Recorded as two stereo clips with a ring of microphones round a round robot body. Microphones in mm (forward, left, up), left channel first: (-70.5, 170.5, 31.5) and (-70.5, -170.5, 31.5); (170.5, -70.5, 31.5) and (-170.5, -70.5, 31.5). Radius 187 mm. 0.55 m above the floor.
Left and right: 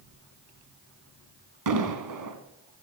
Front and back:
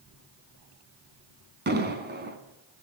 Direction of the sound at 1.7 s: 120° right.